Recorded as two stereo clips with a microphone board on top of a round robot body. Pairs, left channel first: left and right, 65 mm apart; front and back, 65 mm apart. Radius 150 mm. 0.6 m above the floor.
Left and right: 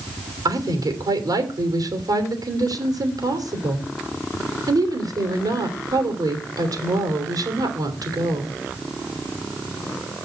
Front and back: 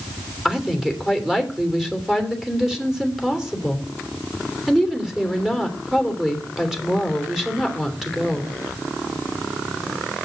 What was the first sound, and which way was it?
A woman speaking, 95° right.